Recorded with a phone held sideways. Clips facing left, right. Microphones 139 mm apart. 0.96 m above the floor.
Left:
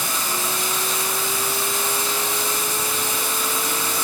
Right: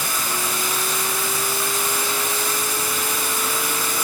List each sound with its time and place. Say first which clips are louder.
0.0 s running water: even; 25° left (ahead or behind), 4 m